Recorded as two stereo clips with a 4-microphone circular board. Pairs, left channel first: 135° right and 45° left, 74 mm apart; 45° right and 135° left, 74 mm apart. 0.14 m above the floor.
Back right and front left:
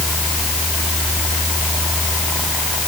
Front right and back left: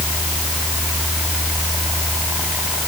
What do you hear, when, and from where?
Only background noise.